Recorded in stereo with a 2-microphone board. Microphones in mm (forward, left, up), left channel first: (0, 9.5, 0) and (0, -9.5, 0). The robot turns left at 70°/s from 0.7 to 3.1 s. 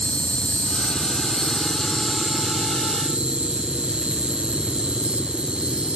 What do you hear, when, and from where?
0.0 s an insect: 90° left; by 6.0 s 80° right